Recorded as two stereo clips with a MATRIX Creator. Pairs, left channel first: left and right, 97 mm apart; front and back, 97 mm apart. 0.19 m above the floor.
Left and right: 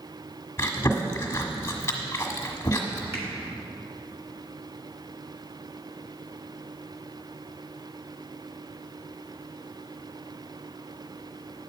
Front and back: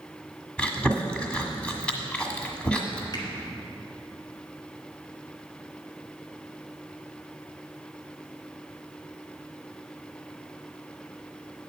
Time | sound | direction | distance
0.6 | chewing | 65° left | 1.4 m
3.1 | a finger snap | 30° right | 2 m